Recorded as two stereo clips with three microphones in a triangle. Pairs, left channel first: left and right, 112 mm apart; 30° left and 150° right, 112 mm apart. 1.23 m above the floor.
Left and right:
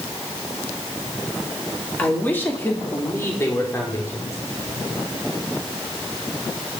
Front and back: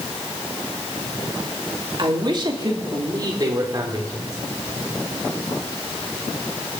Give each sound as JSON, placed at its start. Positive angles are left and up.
{"t": 2.0, "sound": "a man speaking", "azimuth_deg": 165, "distance_m": 2.5}